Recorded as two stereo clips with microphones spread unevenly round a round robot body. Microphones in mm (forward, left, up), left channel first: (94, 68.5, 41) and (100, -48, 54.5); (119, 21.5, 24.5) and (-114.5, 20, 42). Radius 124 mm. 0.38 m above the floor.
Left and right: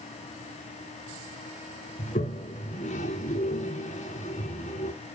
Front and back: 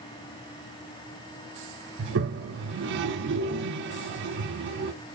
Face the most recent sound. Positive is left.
turn(degrees=140)